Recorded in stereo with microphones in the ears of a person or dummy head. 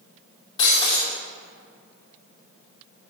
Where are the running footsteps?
No running footsteps in this recording.